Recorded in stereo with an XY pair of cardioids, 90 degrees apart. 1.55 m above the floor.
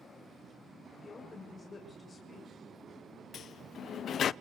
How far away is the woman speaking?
About 7 m.